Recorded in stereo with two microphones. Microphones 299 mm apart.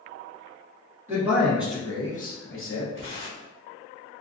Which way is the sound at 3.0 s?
45° right (ahead or behind).